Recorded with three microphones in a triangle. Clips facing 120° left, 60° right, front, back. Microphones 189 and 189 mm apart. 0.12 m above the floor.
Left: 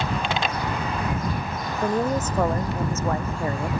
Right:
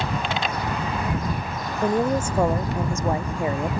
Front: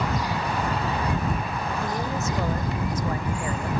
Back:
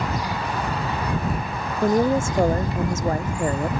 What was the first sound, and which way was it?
A woman speaking, 140° right.